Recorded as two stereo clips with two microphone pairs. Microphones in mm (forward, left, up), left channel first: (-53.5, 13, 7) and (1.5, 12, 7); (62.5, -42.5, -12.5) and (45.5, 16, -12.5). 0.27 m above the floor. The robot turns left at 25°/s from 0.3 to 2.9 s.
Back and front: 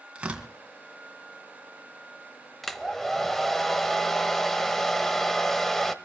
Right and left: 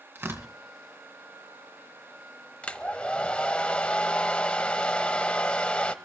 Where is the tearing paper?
65° left, 2.5 m; by 0.5 s 60° left, 2.5 m.